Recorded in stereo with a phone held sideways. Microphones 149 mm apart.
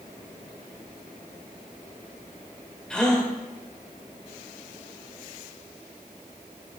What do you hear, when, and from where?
2.9 s a gasp: 5° left (ahead or behind), 1.4 m